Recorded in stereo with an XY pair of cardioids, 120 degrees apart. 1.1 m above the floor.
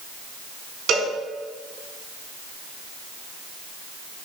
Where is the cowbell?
65° right, 4.5 m.